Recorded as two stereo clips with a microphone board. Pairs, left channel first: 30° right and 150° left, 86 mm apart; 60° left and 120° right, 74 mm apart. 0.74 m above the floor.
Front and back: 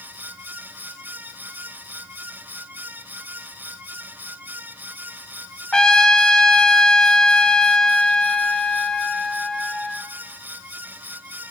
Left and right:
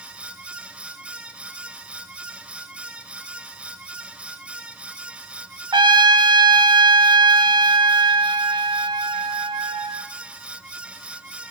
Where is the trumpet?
110° right, 1.1 m.